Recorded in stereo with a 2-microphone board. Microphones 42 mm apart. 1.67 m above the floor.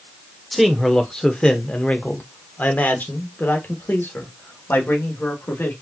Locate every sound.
0.5 s a man speaking: centre (ahead or behind), 1.2 m; by 5.7 s 70° left (ahead or behind), 3 m